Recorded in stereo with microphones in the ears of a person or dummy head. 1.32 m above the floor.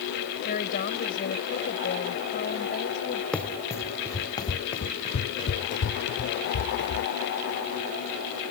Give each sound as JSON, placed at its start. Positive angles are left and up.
{"t": 0.5, "sound": "a woman speaking", "side_deg": 50}
{"t": 3.3, "sound": "running footsteps", "side_deg": 5}